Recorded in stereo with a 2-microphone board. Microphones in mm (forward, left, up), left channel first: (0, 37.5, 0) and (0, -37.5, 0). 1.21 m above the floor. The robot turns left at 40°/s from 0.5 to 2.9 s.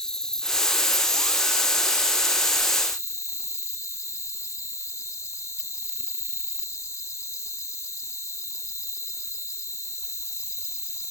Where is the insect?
170° left; by 11.1 s 75° left.